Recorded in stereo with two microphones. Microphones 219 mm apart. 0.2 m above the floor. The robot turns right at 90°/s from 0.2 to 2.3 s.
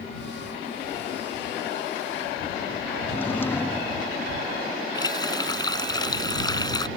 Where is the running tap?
20° left (ahead or behind).